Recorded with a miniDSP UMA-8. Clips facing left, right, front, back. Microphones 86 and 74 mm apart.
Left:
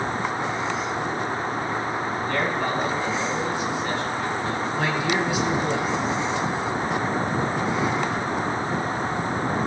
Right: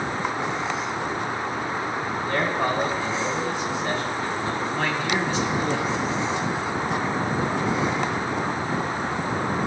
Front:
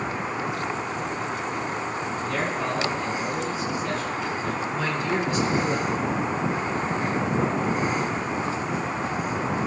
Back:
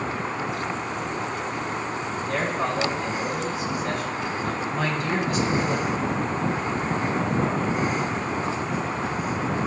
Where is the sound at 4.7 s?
170° left, 2.5 m.